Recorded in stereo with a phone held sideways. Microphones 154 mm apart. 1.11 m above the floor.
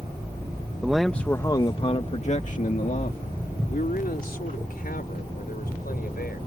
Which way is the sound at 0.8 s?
5° right (ahead or behind).